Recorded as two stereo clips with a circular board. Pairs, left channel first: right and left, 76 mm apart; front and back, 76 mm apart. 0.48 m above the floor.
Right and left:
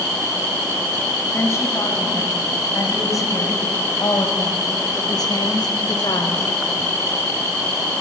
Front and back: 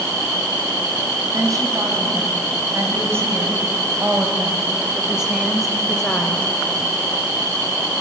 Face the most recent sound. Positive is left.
turn(degrees=-75)